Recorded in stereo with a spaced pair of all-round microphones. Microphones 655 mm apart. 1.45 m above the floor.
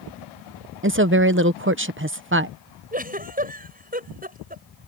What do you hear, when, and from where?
0.8 s a woman speaking: 20° right (ahead or behind)
2.9 s a giggle: 10° right (ahead or behind)